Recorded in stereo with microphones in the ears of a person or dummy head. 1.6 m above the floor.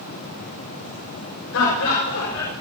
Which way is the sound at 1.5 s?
85° left.